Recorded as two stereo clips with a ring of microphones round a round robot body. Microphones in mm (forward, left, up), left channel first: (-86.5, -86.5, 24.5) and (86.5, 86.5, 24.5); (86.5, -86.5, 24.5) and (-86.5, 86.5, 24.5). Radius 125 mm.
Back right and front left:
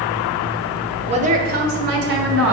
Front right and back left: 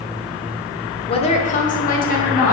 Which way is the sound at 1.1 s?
5° left.